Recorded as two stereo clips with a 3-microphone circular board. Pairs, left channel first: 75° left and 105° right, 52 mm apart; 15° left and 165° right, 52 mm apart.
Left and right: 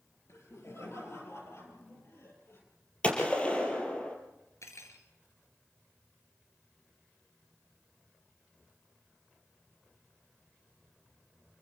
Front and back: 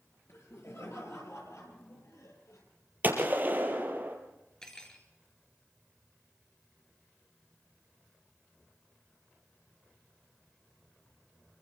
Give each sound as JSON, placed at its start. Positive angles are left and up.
{"t": 0.3, "sound": "laughter", "azimuth_deg": 45, "distance_m": 5.5}
{"t": 3.0, "sound": "a gunshot", "azimuth_deg": 140, "distance_m": 3.5}
{"t": 4.6, "sound": "cutlery clinking", "azimuth_deg": 90, "distance_m": 3.0}